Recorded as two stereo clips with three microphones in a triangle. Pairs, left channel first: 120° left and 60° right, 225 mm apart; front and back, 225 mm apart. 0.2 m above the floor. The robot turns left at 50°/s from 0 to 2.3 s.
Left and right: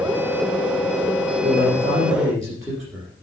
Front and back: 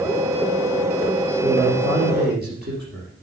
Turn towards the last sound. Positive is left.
turn(degrees=-150)